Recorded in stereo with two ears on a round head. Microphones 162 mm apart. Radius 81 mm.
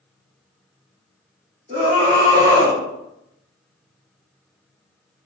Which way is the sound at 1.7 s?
30° right (ahead or behind).